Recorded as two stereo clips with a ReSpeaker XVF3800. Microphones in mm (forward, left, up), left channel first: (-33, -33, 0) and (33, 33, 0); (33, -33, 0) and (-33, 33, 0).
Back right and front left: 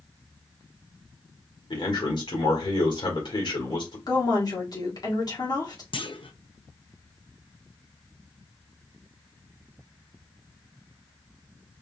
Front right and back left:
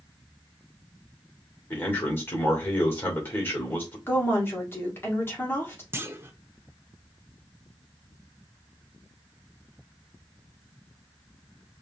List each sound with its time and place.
1.7 s a man speaking: 110° right, 2 m
4.1 s a woman speaking: 105° right, 1.7 m
5.9 s a clunk: 160° right, 0.6 m